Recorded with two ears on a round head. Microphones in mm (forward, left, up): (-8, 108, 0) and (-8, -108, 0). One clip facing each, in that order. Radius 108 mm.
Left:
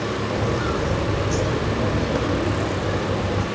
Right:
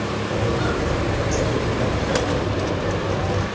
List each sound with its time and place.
0.3 s footsteps: 10° left (ahead or behind), 2 m